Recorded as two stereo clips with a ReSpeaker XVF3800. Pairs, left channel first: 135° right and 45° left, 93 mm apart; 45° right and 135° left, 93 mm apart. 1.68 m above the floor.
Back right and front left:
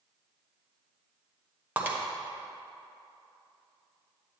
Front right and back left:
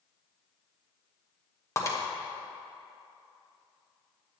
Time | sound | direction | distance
1.8 | breaking glass | 15° right | 1.1 m